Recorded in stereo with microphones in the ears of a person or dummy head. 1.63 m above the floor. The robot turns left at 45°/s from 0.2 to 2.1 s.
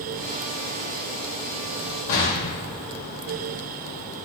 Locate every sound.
2.1 s an explosion: 70° left (ahead or behind), 1.9 m